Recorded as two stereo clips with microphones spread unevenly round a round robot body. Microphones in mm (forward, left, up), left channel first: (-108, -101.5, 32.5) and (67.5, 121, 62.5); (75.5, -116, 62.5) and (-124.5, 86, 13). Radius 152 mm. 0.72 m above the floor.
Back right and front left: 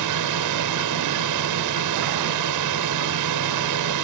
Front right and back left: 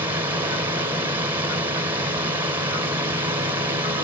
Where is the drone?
55° left.